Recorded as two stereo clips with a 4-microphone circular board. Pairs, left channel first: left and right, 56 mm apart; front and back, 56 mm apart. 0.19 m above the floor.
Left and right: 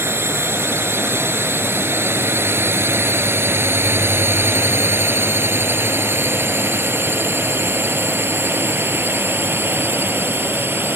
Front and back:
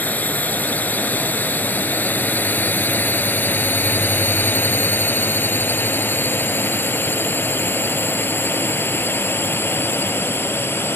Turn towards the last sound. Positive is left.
turn(degrees=-45)